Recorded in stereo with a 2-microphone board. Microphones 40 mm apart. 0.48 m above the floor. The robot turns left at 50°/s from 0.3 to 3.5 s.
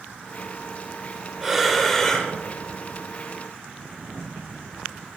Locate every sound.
1.4 s breathing: 170° right, 1.0 m; by 2.3 s 145° left, 1.0 m